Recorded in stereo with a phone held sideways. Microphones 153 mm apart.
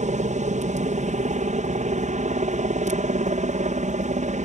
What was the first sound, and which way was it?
A helicopter, 55° right (ahead or behind).